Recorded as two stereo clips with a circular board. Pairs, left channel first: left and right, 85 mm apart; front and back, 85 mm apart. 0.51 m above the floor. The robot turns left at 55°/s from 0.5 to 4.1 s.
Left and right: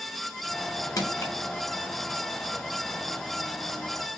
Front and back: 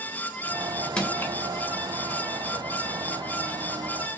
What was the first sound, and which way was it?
Crushing, 75° left.